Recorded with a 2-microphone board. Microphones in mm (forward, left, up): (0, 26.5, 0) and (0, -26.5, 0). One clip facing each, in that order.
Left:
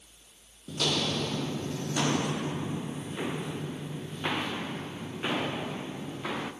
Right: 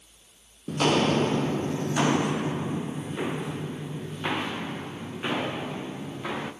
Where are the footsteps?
45° right (ahead or behind), 0.8 m; by 6.5 s 5° right (ahead or behind), 4 m.